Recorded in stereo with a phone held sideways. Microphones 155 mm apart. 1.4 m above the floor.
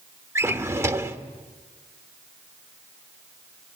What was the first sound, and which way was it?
A drawer, 20° right (ahead or behind).